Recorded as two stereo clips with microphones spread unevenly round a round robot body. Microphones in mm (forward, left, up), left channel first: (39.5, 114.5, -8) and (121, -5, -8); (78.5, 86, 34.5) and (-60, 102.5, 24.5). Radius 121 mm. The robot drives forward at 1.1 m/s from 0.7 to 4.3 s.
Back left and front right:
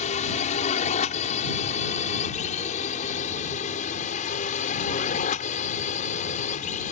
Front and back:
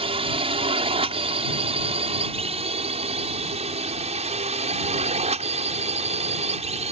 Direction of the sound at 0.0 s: 145° left.